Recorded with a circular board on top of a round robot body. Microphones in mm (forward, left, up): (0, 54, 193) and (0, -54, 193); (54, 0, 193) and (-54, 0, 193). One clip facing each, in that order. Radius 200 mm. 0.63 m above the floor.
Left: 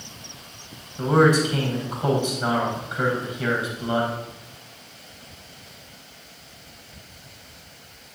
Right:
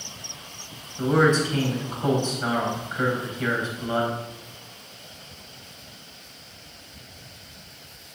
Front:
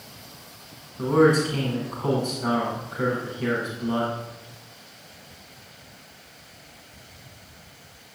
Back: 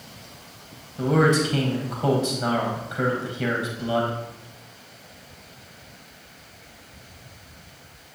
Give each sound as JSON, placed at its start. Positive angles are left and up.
{"t": 1.0, "sound": "a man speaking", "azimuth_deg": 170, "distance_m": 4.5}